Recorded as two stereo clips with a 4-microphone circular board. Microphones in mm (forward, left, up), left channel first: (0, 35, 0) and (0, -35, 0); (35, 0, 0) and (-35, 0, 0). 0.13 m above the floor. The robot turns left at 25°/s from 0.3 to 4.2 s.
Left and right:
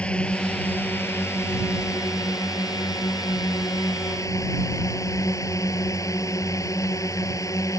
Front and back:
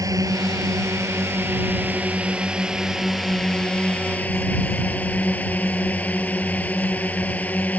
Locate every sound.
0.0 s a drone: 160° left; by 7.8 s 65° left